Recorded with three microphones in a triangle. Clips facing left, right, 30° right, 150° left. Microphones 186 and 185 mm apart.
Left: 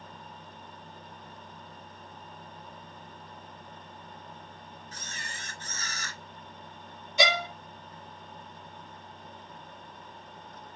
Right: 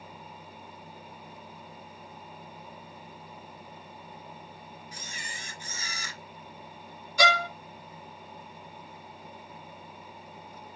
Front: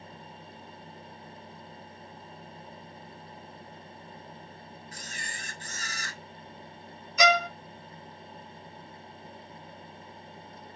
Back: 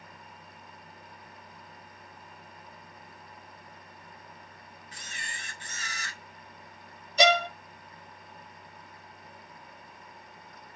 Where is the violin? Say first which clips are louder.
Right 1 dB, back 1 dB; 135° left, 0.6 m.